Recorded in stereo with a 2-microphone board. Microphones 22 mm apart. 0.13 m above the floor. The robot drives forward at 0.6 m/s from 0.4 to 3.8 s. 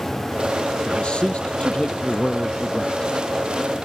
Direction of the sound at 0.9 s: 60° left (ahead or behind).